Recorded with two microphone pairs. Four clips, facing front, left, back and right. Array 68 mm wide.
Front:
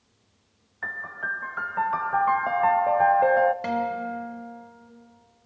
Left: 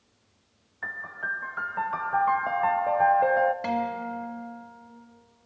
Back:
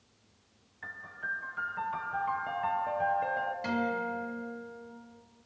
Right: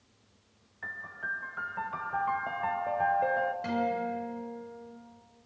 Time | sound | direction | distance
0.8 | a piano | 25° left | 0.5 m
3.6 | a guitar | 40° left | 3 m